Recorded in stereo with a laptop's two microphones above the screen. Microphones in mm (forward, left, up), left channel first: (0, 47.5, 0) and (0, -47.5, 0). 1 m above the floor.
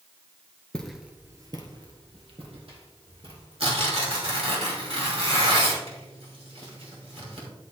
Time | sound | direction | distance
0.7 | footsteps | 10° left (ahead or behind) | 1.0 m
3.6 | tearing paper | 75° right (ahead or behind) | 2.5 m